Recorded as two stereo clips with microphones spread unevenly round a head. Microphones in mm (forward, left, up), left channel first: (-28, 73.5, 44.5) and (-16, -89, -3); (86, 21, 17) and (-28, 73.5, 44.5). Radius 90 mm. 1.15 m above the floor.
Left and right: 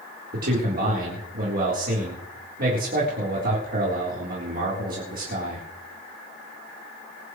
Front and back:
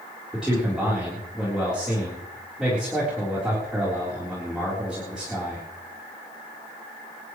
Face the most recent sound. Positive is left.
turn(degrees=-115)